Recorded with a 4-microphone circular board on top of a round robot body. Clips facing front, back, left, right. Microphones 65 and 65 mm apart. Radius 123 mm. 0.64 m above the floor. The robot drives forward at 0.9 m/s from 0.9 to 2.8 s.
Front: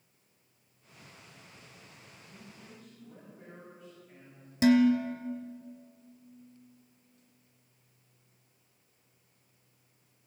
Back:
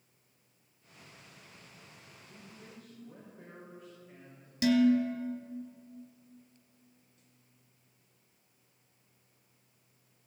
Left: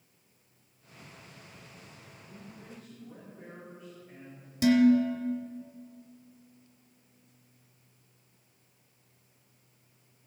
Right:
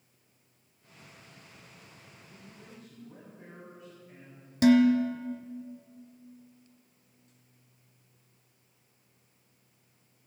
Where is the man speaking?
140° left, 3 m; by 4.5 s 145° left, 3.5 m.